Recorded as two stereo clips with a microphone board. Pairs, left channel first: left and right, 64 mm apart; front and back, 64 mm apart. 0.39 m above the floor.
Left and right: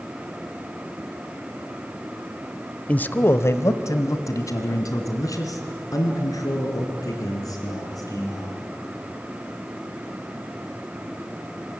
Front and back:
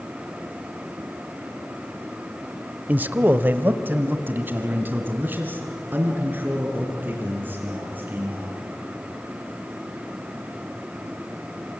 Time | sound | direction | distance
2.9 | a man speaking | 140° left | 0.9 m